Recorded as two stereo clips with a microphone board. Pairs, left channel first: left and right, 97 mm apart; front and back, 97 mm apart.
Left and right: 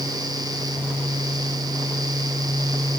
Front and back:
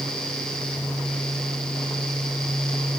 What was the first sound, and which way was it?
Only background noise.